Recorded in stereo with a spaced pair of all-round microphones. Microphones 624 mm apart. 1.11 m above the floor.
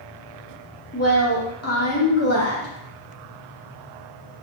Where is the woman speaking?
25° left (ahead or behind), 0.8 m.